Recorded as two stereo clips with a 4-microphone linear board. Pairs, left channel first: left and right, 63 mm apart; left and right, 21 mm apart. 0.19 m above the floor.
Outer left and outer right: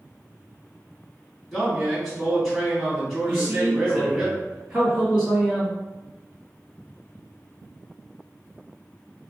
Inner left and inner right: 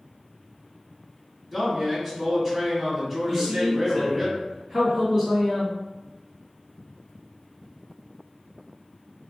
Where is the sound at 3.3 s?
5° right (ahead or behind), 1.5 m.